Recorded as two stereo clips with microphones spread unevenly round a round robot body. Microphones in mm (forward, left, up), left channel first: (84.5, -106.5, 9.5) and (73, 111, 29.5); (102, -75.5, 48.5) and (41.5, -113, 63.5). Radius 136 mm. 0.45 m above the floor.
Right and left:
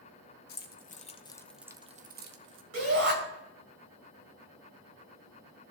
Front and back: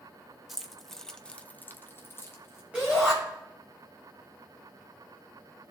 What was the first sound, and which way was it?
Keys jangling, 55° right.